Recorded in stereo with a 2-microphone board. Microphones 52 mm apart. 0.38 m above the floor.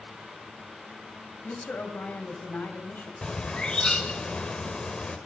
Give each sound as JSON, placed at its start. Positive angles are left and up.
{"t": 1.4, "sound": "a woman speaking", "side_deg": 40, "distance_m": 2.0}
{"t": 3.2, "sound": "a bird", "side_deg": 20, "distance_m": 0.9}